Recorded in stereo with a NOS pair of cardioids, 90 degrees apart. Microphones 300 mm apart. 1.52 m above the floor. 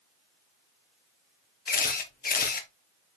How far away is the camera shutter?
About 0.7 m.